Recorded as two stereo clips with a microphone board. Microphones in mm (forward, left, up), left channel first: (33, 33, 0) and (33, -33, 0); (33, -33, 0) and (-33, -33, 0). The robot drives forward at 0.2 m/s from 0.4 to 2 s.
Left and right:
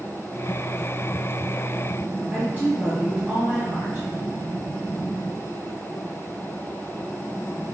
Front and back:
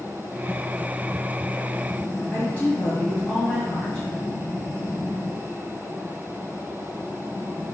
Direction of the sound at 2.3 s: 55° right.